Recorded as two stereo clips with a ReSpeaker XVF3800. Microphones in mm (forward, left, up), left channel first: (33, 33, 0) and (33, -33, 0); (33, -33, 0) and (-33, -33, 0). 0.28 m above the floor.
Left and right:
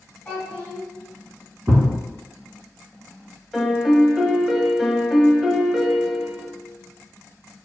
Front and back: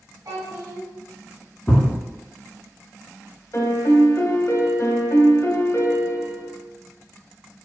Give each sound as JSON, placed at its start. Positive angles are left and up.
{"t": 0.2, "sound": "a child speaking", "azimuth_deg": 160, "distance_m": 1.8}
{"t": 1.7, "sound": "a thud", "azimuth_deg": -60, "distance_m": 1.4}
{"t": 3.5, "sound": "a piano", "azimuth_deg": -5, "distance_m": 0.6}